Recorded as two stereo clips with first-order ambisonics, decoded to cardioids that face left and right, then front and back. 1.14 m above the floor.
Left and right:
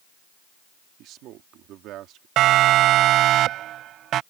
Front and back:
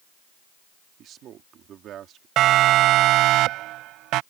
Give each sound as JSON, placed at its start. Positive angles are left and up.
{"t": 1.0, "sound": "a man speaking", "azimuth_deg": -130}
{"t": 2.4, "sound": "a siren", "azimuth_deg": -135}